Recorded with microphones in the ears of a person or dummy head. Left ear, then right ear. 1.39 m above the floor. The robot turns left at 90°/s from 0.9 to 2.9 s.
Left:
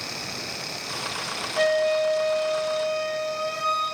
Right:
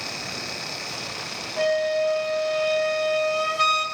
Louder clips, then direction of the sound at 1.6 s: Left 1 dB; 35° left.